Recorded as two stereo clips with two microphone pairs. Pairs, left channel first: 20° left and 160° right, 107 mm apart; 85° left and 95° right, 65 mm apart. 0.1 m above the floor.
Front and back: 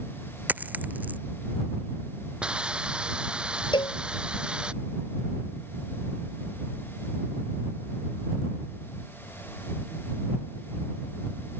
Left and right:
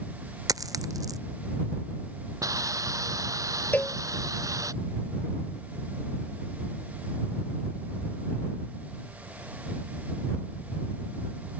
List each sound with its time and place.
0.5 s a dropped coin: 85° right
2.4 s a hiss: 80° right
3.7 s a cowbell: 30° left